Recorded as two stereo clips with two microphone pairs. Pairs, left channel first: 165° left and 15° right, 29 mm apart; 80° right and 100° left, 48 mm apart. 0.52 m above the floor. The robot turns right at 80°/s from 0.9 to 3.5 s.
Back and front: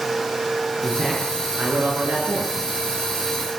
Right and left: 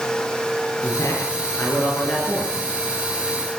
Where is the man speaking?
115° right, 8 m; by 2.5 s 15° left, 8 m.